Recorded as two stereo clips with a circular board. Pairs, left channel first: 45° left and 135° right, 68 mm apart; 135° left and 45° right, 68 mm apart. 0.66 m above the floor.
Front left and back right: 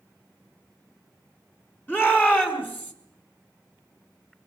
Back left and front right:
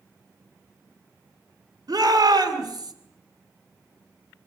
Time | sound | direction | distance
1.9 | a shout | 15° right | 6 m